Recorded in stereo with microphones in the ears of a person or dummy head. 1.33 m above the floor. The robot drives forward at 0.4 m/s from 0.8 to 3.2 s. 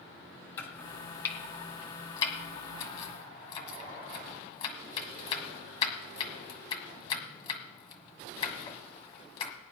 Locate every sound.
0.6 s chopping: 30° left (ahead or behind), 2 m; by 9.5 s 40° left (ahead or behind), 1.6 m